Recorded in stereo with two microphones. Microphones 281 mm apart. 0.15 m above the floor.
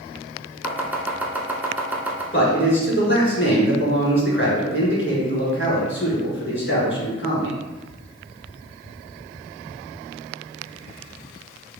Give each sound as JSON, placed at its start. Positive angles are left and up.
{"t": 0.6, "sound": "chopping", "side_deg": -5, "distance_m": 0.7}
{"t": 2.3, "sound": "a man speaking", "side_deg": 45, "distance_m": 1.6}